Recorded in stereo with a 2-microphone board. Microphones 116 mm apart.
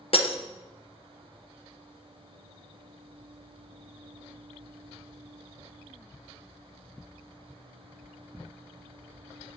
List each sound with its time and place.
0.1 s breaking glass: 50° left (ahead or behind), 0.9 m